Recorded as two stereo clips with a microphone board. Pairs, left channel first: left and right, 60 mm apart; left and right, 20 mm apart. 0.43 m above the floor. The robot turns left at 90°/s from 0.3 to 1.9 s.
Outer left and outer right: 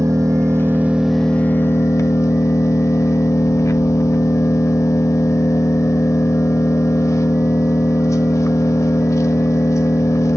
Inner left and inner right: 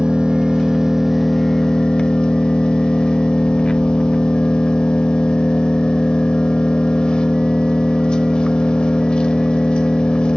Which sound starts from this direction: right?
An engine running, at 0.0 s.